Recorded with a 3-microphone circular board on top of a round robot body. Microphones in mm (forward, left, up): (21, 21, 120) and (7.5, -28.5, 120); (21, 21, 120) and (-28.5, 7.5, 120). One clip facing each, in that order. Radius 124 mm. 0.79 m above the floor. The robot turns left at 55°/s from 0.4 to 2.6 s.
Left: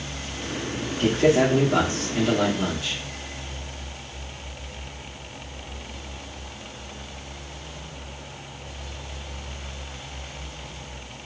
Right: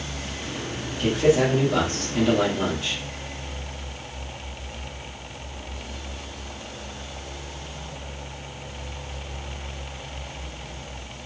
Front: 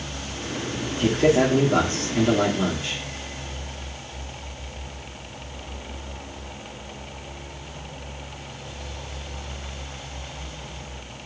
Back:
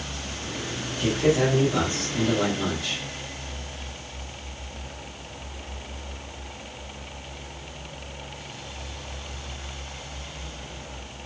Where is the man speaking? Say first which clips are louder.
Left 1 dB, front 3 dB; 45° left, 1.6 m; by 3.0 s 45° right, 1.6 m.